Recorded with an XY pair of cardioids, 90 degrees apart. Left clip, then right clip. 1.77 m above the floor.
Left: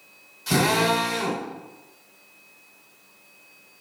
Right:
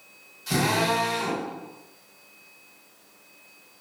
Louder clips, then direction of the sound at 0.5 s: Left 3 dB; 50° left.